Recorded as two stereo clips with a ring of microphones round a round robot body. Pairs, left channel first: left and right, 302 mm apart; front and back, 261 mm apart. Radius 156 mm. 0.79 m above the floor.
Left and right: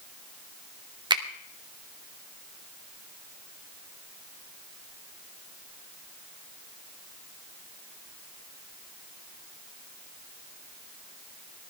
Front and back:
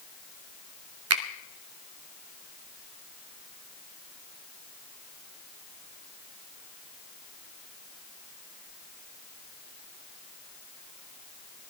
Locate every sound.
1.1 s a finger snap: 165° right, 1.4 m